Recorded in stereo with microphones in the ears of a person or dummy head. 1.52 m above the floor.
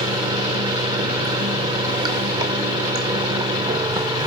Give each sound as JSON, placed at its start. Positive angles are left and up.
{"t": 0.0, "sound": "running water", "side_deg": -20, "distance_m": 0.8}